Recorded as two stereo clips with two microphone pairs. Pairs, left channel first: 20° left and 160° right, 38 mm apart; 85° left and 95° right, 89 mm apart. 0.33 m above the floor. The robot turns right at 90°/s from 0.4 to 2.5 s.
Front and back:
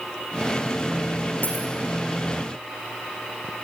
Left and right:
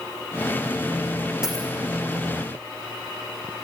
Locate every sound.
1.4 s a dropped coin: 15° right, 5.5 m; by 1.7 s 10° left, 5.5 m